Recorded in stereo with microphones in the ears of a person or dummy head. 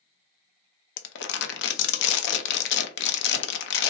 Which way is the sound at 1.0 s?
75° left (ahead or behind).